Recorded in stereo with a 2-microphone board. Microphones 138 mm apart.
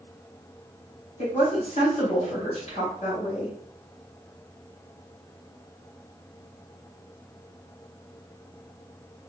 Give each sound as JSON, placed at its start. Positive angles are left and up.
{"t": 1.2, "sound": "a woman speaking", "side_deg": 55, "distance_m": 1.8}